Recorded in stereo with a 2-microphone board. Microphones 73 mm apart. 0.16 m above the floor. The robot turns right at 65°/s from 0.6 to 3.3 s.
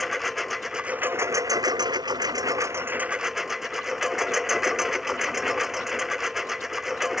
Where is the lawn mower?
Straight behind; by 7.2 s 5° right.